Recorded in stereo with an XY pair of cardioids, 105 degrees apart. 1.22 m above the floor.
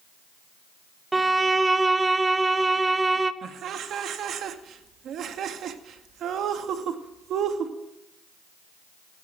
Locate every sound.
1.1 s a violin: 20° right, 1.1 m
3.4 s laughter: 65° right, 2 m